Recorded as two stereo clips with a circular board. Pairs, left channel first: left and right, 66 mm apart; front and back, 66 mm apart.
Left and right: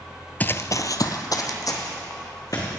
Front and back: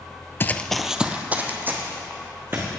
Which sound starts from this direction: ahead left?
Running footsteps, at 0.4 s.